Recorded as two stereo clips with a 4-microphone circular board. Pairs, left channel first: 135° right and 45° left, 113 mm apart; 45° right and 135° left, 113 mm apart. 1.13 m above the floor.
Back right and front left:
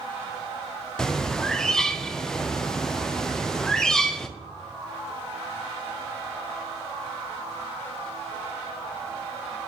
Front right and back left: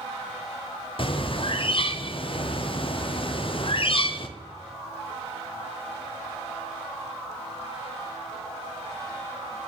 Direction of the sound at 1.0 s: 55° right.